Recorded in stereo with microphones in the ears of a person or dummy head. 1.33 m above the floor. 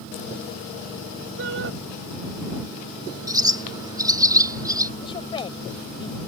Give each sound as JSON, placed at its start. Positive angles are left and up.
{"t": 1.4, "sound": "a shout", "side_deg": -65}
{"t": 3.3, "sound": "a bird", "side_deg": -20}
{"t": 5.0, "sound": "a woman speaking", "side_deg": 25}